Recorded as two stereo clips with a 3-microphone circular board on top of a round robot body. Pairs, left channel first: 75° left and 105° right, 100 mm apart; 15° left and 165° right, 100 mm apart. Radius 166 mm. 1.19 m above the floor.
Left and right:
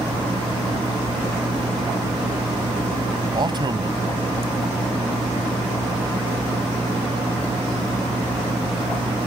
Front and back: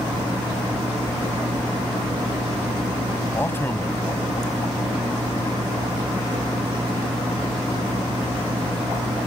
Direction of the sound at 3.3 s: 55° right.